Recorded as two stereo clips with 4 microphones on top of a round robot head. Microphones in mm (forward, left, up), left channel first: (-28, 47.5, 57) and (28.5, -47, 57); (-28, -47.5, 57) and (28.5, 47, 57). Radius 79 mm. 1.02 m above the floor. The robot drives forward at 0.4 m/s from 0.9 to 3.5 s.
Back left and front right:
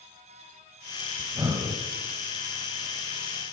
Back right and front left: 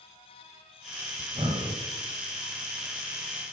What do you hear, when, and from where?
1.2 s breathing: 10° left, 1.7 m